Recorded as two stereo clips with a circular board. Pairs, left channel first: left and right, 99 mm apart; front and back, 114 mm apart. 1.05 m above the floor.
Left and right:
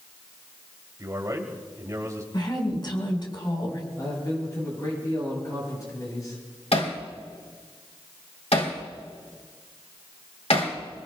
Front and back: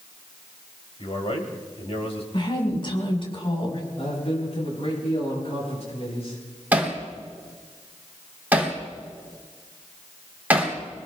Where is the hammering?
105° left, 2.5 m.